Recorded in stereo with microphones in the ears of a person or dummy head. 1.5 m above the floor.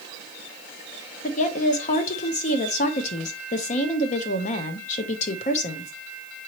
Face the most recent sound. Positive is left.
turn(degrees=45)  # may be behind; listen again after turning